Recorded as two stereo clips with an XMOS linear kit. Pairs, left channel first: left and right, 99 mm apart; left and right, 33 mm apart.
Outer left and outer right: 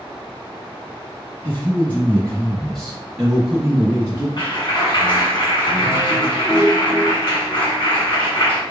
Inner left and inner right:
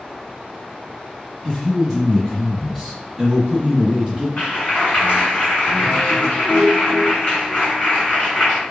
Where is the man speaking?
20° left (ahead or behind), 1.4 m; by 4.3 s 20° right (ahead or behind), 1.4 m.